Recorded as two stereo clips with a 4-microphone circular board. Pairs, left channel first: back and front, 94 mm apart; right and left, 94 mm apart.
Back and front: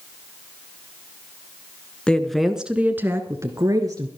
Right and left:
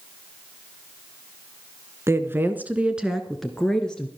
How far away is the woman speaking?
About 1.3 m.